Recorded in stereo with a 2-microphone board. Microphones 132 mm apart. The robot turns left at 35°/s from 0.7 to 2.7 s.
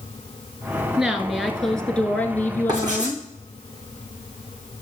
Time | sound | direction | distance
1.0 | a woman speaking | 5° right (ahead or behind) | 1.1 m
2.7 | writing | 30° right (ahead or behind) | 5 m